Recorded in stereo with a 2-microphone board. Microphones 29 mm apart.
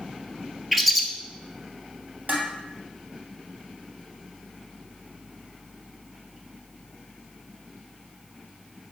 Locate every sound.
0.7 s a bird: centre (ahead or behind), 0.8 m
2.3 s dishes clattering: 65° right (ahead or behind), 2.5 m